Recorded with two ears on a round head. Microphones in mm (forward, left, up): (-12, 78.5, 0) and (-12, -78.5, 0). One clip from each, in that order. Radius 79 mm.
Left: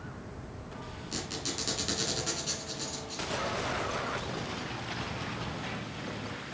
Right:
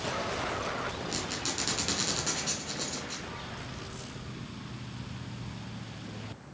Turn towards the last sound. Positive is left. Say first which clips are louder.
# left 2 dB
turn(degrees=-10)  # may be behind; listen again after turning